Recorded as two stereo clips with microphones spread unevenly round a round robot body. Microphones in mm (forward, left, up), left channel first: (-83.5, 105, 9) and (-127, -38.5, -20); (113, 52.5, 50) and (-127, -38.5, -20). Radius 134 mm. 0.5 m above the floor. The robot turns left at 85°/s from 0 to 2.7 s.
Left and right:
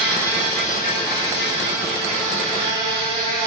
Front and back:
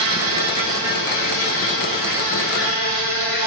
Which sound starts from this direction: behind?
An insect, at 0.0 s.